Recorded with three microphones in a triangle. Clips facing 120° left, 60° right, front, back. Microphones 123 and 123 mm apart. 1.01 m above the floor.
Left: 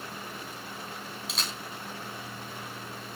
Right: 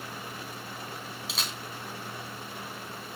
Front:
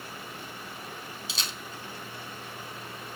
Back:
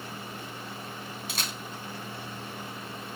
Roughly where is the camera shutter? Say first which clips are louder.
Even, back 2 dB; behind right.